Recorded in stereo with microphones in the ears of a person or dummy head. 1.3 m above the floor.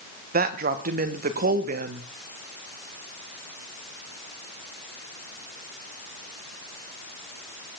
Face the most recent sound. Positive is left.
turn(degrees=-45)  # may be behind; listen again after turning